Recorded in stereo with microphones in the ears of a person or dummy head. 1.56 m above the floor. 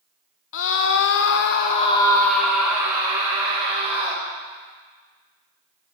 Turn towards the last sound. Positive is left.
turn(degrees=-25)  # may be behind; listen again after turning